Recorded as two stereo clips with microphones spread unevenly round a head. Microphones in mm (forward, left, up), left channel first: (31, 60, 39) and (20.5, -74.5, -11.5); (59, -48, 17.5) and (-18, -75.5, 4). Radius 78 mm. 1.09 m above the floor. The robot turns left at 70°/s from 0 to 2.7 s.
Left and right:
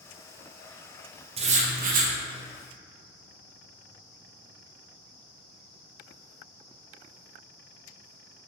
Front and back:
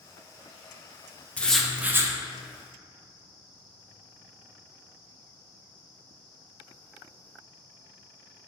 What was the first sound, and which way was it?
Writing, 55° right.